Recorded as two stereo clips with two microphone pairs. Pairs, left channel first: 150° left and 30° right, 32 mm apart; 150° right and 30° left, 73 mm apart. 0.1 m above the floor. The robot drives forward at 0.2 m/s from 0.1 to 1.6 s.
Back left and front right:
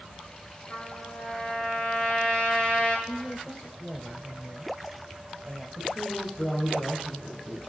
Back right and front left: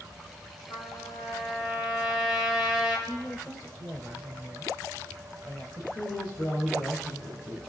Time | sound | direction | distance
0.7 | a trumpet | 165° right | 4 m
3.1 | a woman speaking | 135° right | 1.8 m
5.8 | a woman speaking | 130° right | 3.5 m